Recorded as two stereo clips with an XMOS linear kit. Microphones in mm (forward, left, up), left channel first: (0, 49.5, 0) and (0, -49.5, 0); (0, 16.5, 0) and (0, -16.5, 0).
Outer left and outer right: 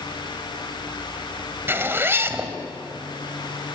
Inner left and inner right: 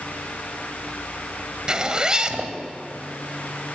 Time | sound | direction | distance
1.7 | a zipper | 25° right (ahead or behind) | 1.9 m